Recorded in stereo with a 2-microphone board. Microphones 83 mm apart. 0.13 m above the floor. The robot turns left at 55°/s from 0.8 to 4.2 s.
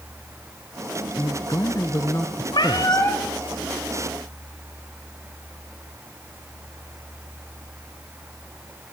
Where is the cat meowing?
65° left, 3.5 m; by 3.2 s 25° left, 3.5 m.